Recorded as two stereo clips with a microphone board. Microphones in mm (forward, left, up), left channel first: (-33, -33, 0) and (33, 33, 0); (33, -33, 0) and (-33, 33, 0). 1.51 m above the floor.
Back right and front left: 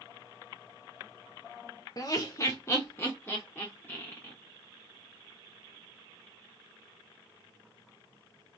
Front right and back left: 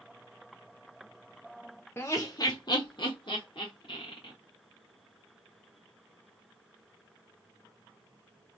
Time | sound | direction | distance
2.0 | laughter | 100° right | 0.5 m